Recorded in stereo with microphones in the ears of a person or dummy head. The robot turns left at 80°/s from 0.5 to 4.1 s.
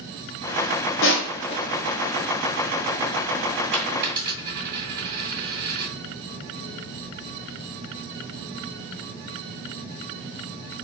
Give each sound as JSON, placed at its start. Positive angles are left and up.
{"t": 1.0, "sound": "crushing", "side_deg": 70, "distance_m": 1.2}
{"t": 3.7, "sound": "a dropped coin", "side_deg": 5, "distance_m": 2.0}